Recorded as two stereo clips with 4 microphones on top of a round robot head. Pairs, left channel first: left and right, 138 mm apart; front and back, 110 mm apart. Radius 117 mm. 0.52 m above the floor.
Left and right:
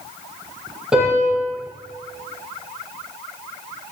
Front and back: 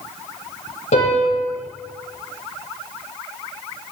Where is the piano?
5° right, 9.5 m.